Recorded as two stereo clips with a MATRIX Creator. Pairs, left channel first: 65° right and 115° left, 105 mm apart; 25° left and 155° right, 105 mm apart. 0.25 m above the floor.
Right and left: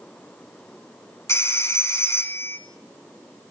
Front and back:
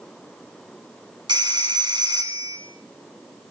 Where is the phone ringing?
125° right, 1.7 m.